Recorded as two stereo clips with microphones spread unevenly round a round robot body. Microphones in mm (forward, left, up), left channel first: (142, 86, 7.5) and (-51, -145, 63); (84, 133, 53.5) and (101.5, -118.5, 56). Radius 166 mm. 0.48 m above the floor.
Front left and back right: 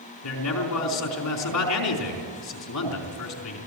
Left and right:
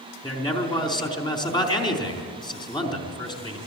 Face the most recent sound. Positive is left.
turn(degrees=20)